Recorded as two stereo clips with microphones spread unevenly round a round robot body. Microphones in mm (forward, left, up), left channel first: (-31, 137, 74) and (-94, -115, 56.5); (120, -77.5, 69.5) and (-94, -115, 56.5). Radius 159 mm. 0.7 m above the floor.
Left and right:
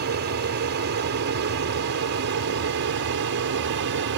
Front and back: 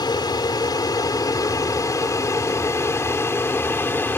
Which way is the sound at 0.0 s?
60° right.